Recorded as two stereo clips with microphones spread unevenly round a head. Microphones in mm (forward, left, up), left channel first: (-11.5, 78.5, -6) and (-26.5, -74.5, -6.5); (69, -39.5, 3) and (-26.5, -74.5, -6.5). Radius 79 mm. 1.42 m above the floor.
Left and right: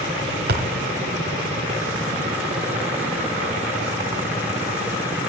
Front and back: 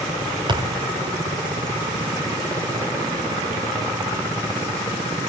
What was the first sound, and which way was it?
A thud, 120° right.